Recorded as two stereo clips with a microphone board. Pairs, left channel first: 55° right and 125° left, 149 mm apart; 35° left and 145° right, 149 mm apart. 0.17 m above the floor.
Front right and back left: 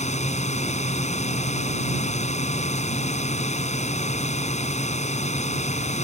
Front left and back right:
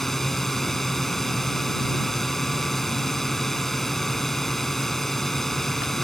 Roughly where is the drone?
Ahead right.